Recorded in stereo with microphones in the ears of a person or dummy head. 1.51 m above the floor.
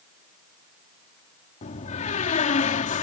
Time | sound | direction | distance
1.6 | a door slam | 35° left (ahead or behind) | ?